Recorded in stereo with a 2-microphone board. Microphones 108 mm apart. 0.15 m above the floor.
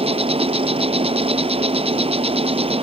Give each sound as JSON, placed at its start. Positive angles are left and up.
{"t": 0.0, "sound": "an insect", "side_deg": -65}